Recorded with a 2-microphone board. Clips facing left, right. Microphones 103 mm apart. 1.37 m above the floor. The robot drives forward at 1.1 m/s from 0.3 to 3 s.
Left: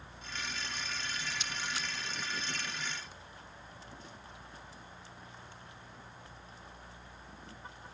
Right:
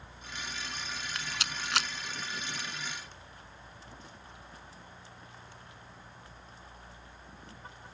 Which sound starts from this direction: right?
A rattle, at 1.1 s.